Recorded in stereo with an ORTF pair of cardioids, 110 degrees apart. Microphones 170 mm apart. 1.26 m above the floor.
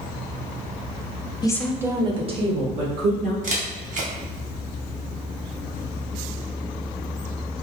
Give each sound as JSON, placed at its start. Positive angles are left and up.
{"t": 1.4, "sound": "a woman speaking", "azimuth_deg": 25, "distance_m": 0.7}
{"t": 3.4, "sound": "a camera shutter", "azimuth_deg": -50, "distance_m": 1.2}